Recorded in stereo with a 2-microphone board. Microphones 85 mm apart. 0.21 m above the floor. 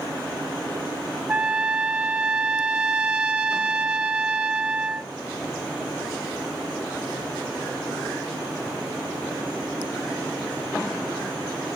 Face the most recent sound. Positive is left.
turn(degrees=-15)  # may be behind; listen again after turning